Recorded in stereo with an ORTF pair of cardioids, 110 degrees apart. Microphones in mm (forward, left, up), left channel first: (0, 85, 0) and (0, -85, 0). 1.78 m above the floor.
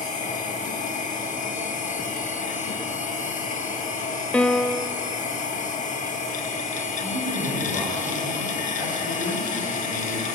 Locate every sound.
0.0 s a machine running: 50° left, 2 m
4.3 s a piano: 5° left, 0.6 m
7.0 s a man speaking: 65° left, 8.5 m